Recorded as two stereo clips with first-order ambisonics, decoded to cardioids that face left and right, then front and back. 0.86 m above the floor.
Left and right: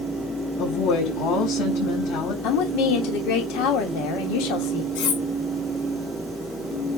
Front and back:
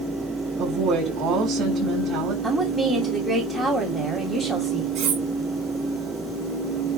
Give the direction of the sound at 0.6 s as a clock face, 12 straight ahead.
8 o'clock.